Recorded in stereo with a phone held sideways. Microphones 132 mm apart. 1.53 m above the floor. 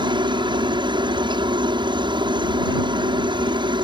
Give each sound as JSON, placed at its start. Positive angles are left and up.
{"t": 0.0, "sound": "a helicopter", "side_deg": -35}